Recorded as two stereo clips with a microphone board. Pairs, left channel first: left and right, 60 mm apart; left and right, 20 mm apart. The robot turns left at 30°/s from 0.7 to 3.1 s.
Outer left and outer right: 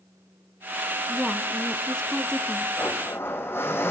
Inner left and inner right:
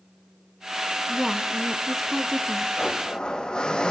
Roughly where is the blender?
Left.